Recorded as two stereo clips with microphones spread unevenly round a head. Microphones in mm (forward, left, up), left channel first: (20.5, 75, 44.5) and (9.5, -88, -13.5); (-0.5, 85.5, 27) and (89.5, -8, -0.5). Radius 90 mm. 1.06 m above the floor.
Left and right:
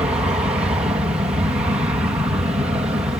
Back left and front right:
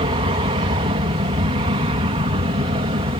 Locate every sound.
0.0 s an aircraft: 30° right